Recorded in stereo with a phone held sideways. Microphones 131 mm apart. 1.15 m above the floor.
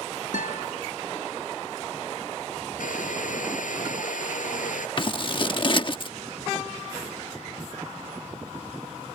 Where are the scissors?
40° left (ahead or behind).